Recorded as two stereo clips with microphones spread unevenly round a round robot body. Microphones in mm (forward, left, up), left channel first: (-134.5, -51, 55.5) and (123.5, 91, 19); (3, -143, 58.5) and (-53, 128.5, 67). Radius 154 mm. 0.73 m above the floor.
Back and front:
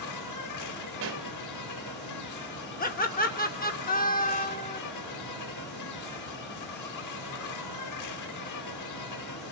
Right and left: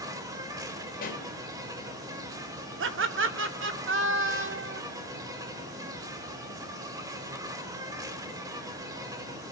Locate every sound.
0.0 s an insect: straight behind, 1.9 m
1.0 s a pop: 20° right, 2 m
2.8 s laughter: 145° left, 2 m